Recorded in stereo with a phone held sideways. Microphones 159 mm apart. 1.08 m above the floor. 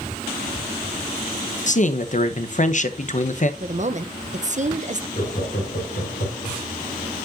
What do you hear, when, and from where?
1.7 s a man speaking: 50° left (ahead or behind), 0.8 m
3.6 s a woman speaking: 50° right (ahead or behind), 0.6 m
5.2 s laughter: 60° left (ahead or behind), 3.5 m